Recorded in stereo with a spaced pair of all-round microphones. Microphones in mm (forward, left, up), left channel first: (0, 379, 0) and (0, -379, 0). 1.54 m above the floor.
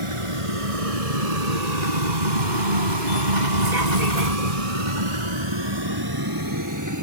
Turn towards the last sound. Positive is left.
turn(degrees=-20)  # may be behind; listen again after turning